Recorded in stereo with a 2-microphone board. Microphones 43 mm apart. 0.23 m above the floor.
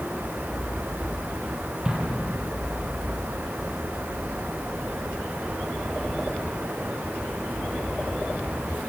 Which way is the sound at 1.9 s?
25° right (ahead or behind).